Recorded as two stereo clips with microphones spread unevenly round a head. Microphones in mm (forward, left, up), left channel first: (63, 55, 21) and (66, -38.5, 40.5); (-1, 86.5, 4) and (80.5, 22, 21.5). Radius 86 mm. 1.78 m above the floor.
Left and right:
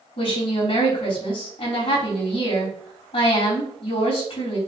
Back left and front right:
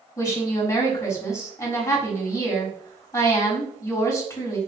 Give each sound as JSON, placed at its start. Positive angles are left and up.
{"t": 0.2, "sound": "a woman speaking", "azimuth_deg": 85, "distance_m": 4.0}